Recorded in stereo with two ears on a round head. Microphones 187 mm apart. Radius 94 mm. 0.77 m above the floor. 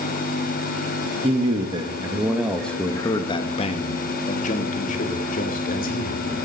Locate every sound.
1.2 s a man speaking: 30° right (ahead or behind), 1.3 m; by 6.2 s 45° left (ahead or behind), 3 m